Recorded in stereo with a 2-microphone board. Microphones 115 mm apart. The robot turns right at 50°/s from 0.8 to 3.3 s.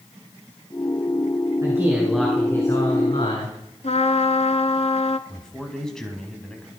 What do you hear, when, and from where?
1.6 s a man speaking: 30° right, 7 m; by 3.6 s 55° left, 7 m
3.8 s a trumpet: 65° left (ahead or behind), 1.1 m
5.3 s a man speaking: 5° left (ahead or behind), 4 m